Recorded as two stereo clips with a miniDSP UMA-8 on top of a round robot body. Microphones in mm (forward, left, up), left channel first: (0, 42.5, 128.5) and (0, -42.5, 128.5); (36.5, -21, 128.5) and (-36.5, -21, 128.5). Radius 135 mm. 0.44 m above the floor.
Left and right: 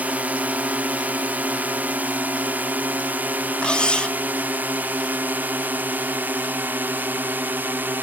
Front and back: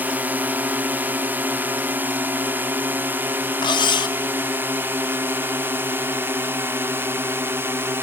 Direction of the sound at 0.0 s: 140° right.